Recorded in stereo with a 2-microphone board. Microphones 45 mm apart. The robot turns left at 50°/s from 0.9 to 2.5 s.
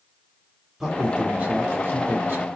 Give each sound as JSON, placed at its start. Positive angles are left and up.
{"t": 0.8, "sound": "a man speaking", "azimuth_deg": -10, "distance_m": 2.0}